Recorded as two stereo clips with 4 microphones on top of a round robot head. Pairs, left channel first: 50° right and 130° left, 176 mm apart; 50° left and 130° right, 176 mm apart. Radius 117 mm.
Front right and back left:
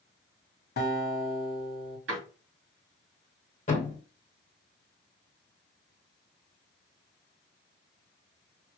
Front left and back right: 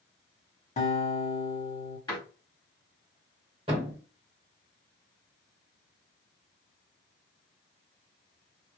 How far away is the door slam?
About 2.5 m.